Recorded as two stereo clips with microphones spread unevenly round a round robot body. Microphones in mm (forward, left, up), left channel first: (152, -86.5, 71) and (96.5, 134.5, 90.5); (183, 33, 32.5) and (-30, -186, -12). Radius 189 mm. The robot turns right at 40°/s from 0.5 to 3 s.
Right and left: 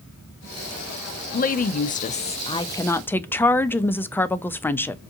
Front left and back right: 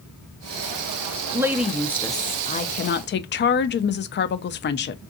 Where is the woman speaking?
70° right, 0.5 m; by 5.0 s 5° right, 0.5 m.